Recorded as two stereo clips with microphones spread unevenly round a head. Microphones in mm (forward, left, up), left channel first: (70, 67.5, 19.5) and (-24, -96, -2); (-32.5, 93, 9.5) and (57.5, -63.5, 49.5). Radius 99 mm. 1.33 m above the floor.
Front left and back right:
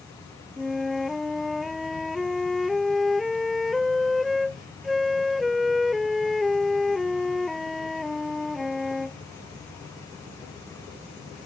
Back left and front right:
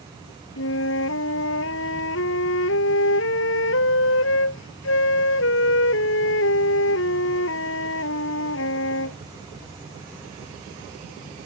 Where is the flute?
150° left.